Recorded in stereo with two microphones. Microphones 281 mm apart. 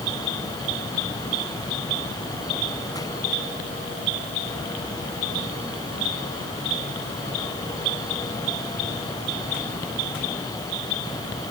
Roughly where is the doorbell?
I don't hear a doorbell.